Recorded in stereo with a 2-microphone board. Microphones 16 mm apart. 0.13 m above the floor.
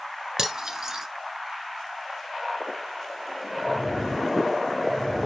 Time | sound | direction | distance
0.4 | cutlery clinking | 40° right (ahead or behind) | 1.1 m